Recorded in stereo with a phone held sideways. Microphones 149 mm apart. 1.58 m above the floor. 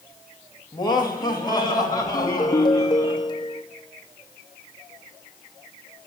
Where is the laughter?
30° left (ahead or behind), 3 m; by 3.1 s 25° left (ahead or behind), 5.5 m.